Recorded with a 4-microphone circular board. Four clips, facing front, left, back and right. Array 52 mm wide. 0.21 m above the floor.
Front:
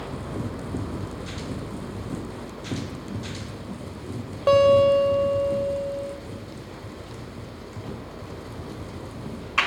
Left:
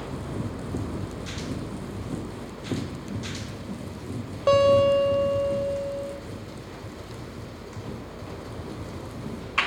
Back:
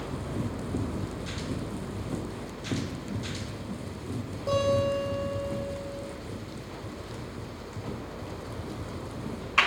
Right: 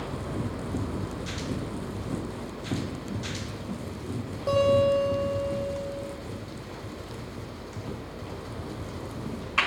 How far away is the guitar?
About 6 m.